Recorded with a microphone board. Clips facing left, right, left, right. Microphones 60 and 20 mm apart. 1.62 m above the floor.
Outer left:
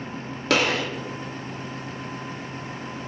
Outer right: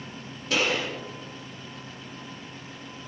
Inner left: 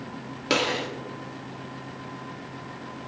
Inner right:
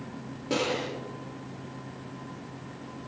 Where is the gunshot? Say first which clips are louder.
Outer left 4 dB, inner left 4 dB; 85° left, 3.5 m.